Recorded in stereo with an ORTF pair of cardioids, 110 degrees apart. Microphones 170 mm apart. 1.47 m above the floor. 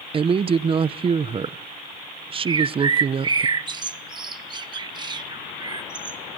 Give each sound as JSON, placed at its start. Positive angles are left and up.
{"t": 0.1, "sound": "a woman speaking", "azimuth_deg": -35, "distance_m": 0.7}
{"t": 2.5, "sound": "a bird", "azimuth_deg": -25, "distance_m": 1.0}